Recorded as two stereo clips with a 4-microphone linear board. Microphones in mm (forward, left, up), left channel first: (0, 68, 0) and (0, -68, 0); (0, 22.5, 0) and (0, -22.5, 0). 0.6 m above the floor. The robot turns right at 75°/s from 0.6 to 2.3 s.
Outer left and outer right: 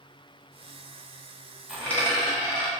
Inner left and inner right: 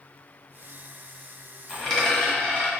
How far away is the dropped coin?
About 1.1 m.